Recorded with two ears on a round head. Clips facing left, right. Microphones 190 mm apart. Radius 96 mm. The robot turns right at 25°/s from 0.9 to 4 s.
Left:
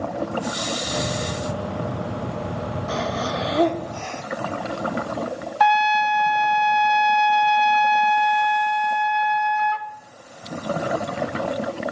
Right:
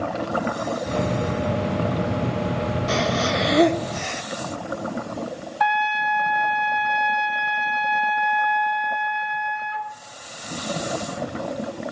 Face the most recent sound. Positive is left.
turn(degrees=60)  # may be behind; listen again after turning